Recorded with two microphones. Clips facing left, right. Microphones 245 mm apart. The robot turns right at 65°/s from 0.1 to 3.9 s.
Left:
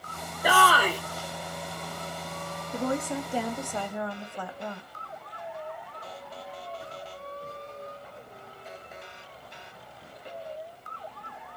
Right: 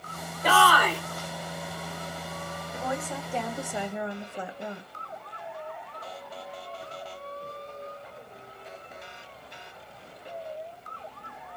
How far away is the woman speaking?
About 0.7 m.